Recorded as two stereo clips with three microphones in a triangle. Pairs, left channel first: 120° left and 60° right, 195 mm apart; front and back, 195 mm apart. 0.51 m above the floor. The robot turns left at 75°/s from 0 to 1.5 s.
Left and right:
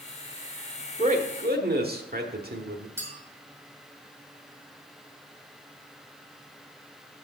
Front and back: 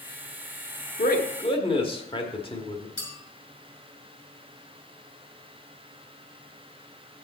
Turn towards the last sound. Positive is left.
turn(degrees=15)